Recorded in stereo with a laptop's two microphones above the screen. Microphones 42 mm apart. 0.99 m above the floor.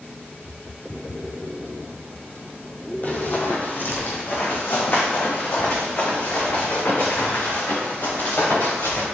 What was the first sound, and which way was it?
Running footsteps, 40° left (ahead or behind).